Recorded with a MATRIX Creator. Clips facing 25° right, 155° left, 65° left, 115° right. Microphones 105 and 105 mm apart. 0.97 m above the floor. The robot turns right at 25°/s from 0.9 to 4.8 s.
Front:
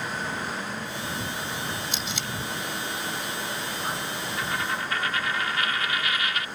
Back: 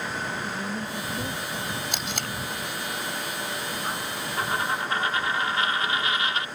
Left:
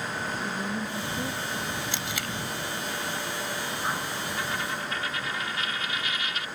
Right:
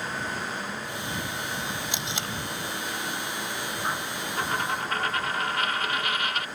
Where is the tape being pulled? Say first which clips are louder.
Back 1 dB, even; 175° left; by 2.3 s 170° right.